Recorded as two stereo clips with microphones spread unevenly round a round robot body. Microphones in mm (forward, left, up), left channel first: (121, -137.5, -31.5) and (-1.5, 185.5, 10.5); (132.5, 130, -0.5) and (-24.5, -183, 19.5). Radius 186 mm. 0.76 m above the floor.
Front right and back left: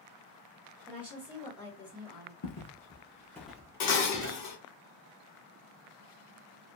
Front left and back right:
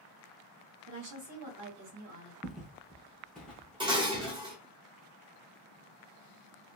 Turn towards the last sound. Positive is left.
turn(degrees=-40)